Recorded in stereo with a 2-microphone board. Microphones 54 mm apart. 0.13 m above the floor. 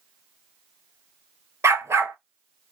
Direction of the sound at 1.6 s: 65° right (ahead or behind).